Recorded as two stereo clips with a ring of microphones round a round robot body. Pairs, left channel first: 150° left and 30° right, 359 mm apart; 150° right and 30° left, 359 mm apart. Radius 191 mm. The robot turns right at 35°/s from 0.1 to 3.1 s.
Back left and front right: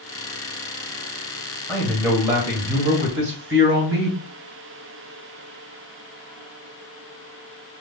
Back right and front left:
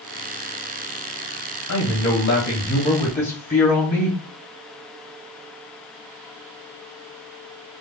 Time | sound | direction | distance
1.7 | a man speaking | 130° right | 1.4 m